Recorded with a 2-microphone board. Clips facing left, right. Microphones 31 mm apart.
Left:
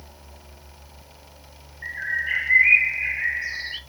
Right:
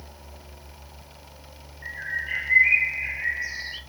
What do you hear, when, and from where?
1.8 s a bird: 25° left (ahead or behind), 1.2 m